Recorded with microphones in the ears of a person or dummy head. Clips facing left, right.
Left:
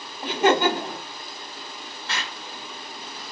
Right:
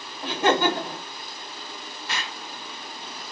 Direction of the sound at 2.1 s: 10° right (ahead or behind).